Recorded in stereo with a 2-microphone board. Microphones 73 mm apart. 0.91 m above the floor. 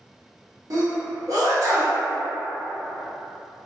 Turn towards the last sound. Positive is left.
turn(degrees=-60)  # may be behind; listen again after turning